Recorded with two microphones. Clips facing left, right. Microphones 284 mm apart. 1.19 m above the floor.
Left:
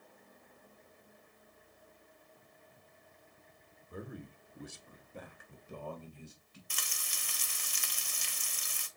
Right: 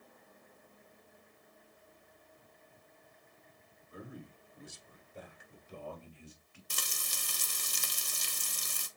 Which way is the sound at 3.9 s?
60° left (ahead or behind).